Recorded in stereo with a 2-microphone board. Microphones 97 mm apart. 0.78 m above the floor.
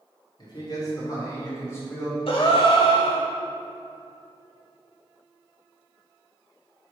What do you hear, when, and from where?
0.4 s a man speaking: 45° left (ahead or behind), 2 m; by 2.2 s 25° left (ahead or behind), 4 m
2.3 s a gasp: 65° left (ahead or behind), 1.0 m